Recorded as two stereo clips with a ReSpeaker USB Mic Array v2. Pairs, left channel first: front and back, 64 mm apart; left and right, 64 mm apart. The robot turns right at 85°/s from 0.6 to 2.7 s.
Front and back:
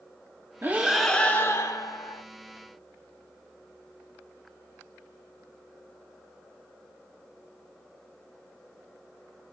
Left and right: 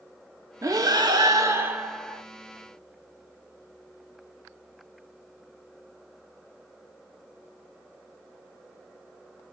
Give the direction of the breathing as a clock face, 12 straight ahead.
4 o'clock.